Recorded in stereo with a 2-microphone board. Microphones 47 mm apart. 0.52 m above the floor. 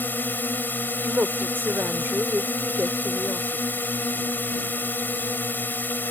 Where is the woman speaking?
55° right (ahead or behind).